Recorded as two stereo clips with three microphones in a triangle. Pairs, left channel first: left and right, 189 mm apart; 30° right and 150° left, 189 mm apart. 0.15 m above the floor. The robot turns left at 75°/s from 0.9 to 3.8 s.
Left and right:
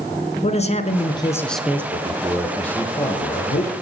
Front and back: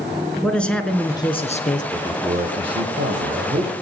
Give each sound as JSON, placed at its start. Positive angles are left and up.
{"t": 0.4, "sound": "a man speaking", "azimuth_deg": 50, "distance_m": 1.7}
{"t": 1.9, "sound": "a man speaking", "azimuth_deg": -130, "distance_m": 4.5}